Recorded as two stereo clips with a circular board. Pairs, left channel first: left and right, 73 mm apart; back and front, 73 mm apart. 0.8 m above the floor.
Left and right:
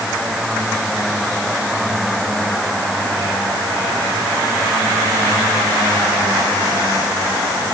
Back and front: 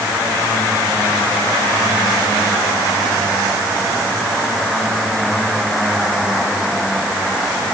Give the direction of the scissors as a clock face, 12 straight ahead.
No scissors in this recording.